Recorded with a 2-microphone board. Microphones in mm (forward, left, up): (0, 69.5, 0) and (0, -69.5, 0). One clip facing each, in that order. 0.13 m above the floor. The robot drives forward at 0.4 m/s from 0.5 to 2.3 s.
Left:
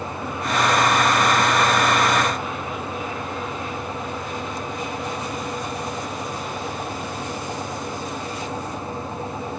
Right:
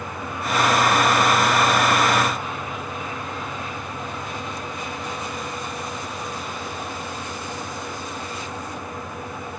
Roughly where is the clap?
I don't hear a clap.